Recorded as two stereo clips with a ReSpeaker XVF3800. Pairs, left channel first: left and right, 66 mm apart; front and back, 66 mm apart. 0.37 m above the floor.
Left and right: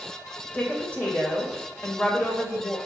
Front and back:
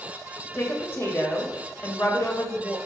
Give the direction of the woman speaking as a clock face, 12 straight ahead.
11 o'clock.